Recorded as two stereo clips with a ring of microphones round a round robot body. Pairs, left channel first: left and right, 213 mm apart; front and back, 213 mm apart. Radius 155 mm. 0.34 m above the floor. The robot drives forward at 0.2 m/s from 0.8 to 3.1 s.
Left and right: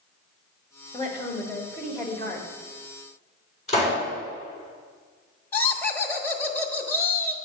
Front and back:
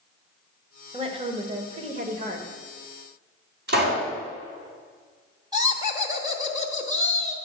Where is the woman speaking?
140° left, 1.0 m; by 2.5 s 155° left, 1.2 m.